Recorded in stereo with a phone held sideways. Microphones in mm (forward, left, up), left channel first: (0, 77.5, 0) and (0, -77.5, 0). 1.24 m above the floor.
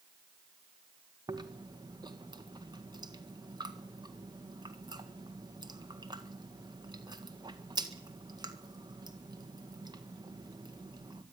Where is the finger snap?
I don't hear a finger snap.